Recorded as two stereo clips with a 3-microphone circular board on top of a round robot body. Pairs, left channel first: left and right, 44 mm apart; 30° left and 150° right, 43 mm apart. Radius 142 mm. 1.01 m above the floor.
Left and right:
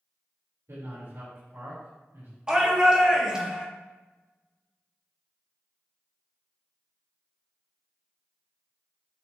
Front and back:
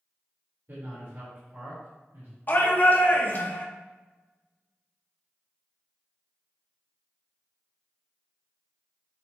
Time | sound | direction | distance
0.7 | a man speaking | 105° right | 4.5 m
2.5 | a shout | 15° right | 2.5 m